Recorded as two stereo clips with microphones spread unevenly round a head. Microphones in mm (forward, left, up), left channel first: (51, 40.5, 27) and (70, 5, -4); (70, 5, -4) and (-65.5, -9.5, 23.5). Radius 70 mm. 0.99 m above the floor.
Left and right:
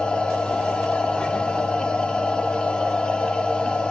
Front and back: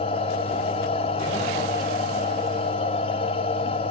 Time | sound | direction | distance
0.0 | a machine running | 60° left | 1.3 m